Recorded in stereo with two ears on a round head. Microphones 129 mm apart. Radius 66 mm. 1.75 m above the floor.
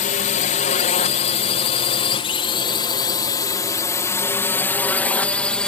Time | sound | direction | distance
0.0 | a drone | 60° left (ahead or behind) | ?